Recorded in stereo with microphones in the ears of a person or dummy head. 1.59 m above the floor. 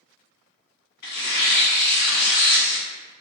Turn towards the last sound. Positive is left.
turn(degrees=55)  # may be behind; listen again after turning